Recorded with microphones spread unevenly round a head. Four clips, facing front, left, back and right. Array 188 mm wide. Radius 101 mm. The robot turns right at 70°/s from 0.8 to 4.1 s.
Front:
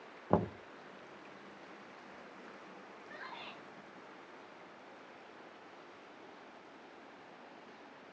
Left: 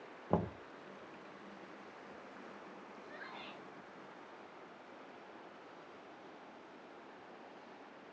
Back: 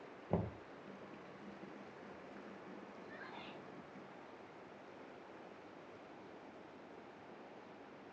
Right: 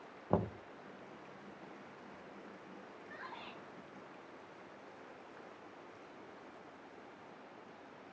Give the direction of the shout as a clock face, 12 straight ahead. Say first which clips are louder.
Right 2 dB, front 5 dB; 1 o'clock.